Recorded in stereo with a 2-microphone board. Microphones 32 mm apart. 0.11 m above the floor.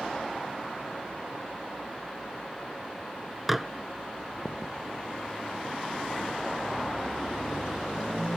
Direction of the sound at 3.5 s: 5° right (ahead or behind).